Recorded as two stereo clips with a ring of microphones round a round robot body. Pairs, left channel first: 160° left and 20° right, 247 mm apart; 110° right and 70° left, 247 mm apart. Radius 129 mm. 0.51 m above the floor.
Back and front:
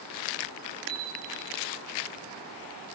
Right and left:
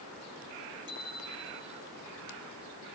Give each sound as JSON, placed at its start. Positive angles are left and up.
{"t": 0.9, "sound": "a bicycle bell", "azimuth_deg": 140, "distance_m": 8.5}